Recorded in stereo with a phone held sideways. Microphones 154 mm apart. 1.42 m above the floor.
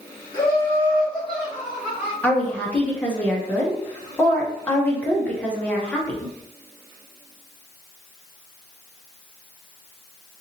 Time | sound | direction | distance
0.3 | laughter | 20° left (ahead or behind) | 2.5 m
2.2 | a woman speaking | 10° left (ahead or behind) | 1.3 m